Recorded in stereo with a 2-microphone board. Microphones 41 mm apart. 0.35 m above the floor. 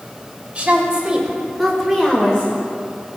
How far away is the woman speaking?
About 1.8 m.